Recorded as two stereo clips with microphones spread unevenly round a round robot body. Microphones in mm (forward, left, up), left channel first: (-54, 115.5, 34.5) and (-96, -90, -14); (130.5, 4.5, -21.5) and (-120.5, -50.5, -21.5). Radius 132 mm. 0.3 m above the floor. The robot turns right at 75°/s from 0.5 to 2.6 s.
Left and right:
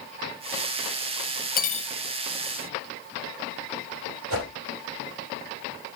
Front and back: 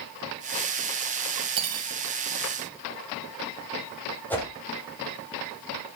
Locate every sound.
1.6 s cutlery clinking: 125° left, 0.9 m; by 1.9 s 155° left, 0.9 m
4.3 s a whoosh: 70° right, 6 m